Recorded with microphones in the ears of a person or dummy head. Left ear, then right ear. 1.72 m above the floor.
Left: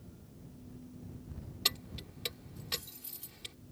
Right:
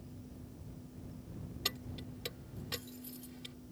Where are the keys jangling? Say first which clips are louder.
Left 6 dB; 15° left (ahead or behind).